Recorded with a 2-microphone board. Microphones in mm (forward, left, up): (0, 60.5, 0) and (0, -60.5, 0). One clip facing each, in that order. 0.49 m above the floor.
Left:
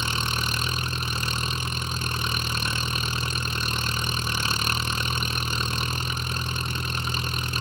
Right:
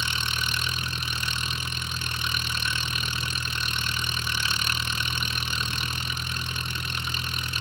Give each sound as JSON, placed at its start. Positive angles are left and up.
{"t": 0.0, "sound": "an engine running", "side_deg": 40}